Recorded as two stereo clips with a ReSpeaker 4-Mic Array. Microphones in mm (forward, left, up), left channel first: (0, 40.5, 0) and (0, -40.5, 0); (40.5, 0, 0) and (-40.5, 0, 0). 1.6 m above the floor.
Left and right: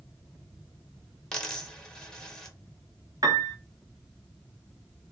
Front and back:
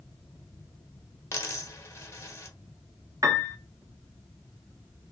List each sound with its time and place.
1.3 s a dropped coin: 15° left, 1.5 m
3.2 s a piano: 130° right, 1.2 m